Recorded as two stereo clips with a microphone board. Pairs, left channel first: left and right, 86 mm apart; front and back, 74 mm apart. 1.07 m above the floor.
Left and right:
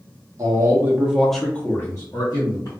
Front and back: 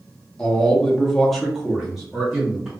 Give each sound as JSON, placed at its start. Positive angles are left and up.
{"t": 0.4, "sound": "a man speaking", "azimuth_deg": -75, "distance_m": 0.8}